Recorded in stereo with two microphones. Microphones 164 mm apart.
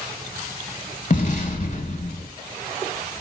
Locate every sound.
1.1 s an explosion: 50° left (ahead or behind), 0.6 m